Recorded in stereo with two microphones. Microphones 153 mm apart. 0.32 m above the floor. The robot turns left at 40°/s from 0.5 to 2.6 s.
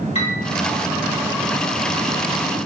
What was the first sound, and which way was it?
A piano, 35° left (ahead or behind).